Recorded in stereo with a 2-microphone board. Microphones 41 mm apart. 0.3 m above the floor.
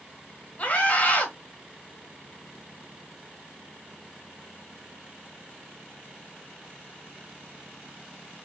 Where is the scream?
35° left (ahead or behind), 1.3 m.